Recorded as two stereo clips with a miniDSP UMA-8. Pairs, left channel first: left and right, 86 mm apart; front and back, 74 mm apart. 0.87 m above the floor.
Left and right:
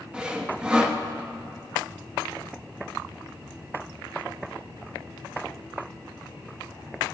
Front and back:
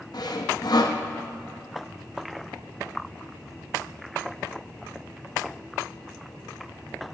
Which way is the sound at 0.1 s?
10° right.